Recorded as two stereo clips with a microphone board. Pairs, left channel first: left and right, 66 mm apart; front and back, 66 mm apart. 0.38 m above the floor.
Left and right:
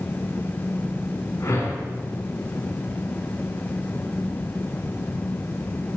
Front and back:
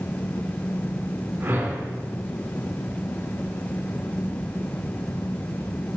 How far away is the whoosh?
About 2.0 m.